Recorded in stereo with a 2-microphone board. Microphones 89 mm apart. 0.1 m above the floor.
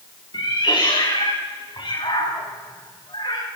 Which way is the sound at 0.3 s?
60° left (ahead or behind).